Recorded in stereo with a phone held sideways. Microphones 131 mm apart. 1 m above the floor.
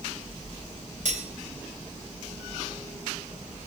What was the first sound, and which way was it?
Cutlery clinking, 70° right (ahead or behind).